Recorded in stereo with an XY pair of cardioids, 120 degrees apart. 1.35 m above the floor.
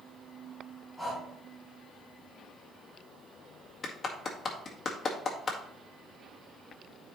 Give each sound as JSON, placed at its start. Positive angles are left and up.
{"t": 1.0, "sound": "breathing", "azimuth_deg": -5, "distance_m": 5.5}
{"t": 3.8, "sound": "a clap", "azimuth_deg": 30, "distance_m": 1.8}